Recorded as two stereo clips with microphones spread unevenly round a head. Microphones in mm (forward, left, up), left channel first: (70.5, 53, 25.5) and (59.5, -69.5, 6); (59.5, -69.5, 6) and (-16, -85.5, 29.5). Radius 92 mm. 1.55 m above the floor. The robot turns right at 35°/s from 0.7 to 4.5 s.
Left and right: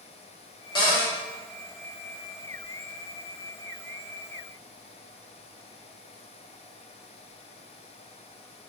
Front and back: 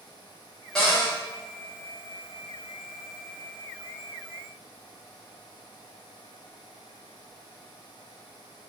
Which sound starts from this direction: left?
A cupboard door, at 0.8 s.